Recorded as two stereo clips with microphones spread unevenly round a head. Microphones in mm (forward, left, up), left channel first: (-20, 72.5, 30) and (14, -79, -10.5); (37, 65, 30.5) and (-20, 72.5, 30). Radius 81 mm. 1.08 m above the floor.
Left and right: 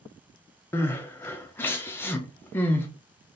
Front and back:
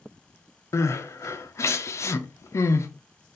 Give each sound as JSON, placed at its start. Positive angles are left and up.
{"t": 0.7, "sound": "crying", "azimuth_deg": 15, "distance_m": 0.7}